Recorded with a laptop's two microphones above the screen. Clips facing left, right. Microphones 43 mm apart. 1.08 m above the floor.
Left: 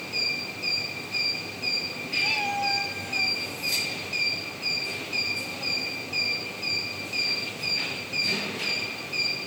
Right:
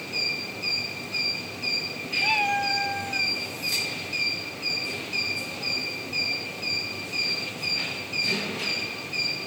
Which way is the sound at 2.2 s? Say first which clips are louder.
Right 3 dB; 25° right (ahead or behind).